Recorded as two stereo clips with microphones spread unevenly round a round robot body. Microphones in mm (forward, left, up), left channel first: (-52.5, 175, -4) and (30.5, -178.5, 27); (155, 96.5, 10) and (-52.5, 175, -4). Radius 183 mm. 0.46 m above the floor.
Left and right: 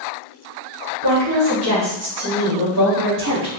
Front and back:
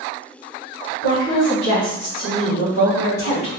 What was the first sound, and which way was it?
A woman speaking, 45° right.